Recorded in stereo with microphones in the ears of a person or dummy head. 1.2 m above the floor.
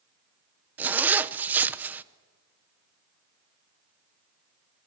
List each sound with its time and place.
0.8 s a zipper: 5° right (ahead or behind), 0.8 m